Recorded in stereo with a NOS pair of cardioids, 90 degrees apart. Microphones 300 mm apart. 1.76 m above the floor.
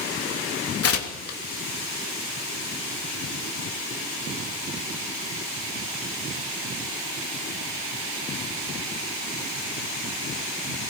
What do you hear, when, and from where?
0.8 s tearing paper: 50° left, 3 m